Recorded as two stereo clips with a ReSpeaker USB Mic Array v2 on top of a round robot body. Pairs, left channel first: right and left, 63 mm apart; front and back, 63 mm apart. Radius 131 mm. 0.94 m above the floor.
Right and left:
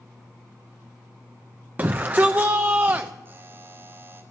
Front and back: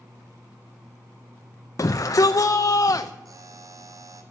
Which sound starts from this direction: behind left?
A buzzer, at 3.2 s.